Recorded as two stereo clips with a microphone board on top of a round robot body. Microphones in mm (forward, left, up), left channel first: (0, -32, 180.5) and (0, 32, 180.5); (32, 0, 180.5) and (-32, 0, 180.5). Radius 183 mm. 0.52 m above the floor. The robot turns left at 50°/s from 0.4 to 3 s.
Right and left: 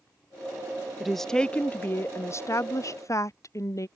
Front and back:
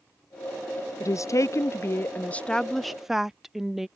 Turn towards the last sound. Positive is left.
turn(degrees=-95)